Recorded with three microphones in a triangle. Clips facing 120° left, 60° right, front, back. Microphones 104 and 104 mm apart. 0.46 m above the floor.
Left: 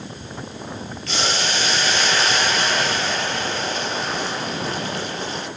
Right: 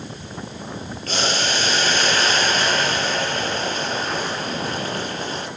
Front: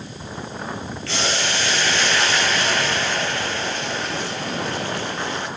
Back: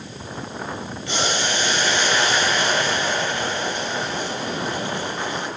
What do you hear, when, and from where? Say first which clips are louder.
1.1 s boiling: right 1 dB, back 1 dB; 105° right, 6.5 m